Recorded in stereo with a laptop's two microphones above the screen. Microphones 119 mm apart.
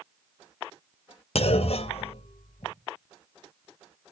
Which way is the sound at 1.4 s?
60° left (ahead or behind).